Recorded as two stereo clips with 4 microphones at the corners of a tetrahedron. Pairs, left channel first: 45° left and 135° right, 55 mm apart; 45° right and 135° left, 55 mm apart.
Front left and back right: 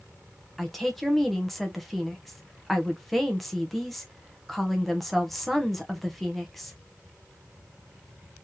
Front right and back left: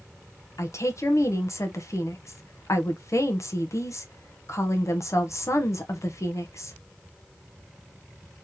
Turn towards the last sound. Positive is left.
turn(degrees=-45)